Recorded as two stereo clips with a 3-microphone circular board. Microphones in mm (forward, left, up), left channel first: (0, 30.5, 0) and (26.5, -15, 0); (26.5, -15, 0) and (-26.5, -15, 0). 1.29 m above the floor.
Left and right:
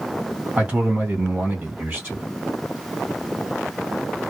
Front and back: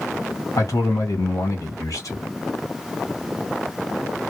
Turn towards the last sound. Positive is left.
turn(degrees=-5)